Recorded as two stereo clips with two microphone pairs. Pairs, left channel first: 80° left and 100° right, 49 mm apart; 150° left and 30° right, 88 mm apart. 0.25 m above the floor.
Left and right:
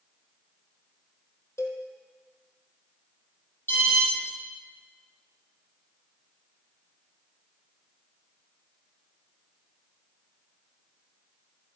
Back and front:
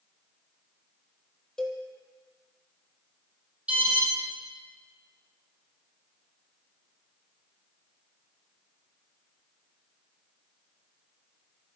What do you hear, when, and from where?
1.6 s a cowbell: 65° left, 2 m
3.7 s an alarm: 45° left, 6.5 m